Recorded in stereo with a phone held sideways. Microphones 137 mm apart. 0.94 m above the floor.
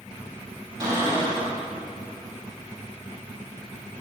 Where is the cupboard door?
30° right (ahead or behind), 2 m.